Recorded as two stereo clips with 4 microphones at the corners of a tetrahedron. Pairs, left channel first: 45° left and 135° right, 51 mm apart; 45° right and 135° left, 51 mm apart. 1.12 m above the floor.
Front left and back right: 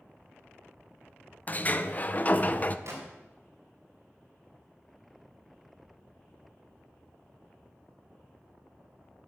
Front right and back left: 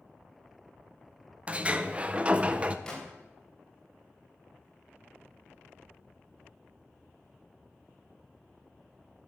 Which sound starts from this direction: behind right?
A gunshot, at 2.9 s.